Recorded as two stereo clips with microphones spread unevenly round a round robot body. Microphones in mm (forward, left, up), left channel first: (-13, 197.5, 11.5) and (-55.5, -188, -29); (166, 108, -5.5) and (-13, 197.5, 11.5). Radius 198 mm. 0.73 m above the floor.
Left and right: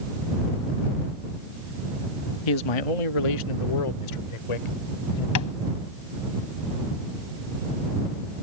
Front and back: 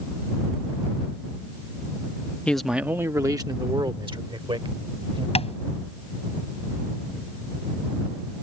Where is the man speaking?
55° left; by 5.2 s 90° left.